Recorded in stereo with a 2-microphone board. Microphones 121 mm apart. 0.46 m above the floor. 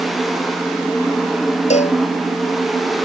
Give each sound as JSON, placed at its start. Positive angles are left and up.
{"t": 1.7, "sound": "a cowbell", "side_deg": 75}